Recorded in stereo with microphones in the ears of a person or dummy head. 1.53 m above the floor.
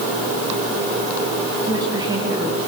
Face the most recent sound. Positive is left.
turn(degrees=-20)  # may be behind; listen again after turning